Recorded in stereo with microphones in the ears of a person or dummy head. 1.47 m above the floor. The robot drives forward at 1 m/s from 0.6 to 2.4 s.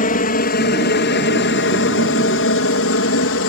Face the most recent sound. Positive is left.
turn(degrees=60)  # may be behind; listen again after turning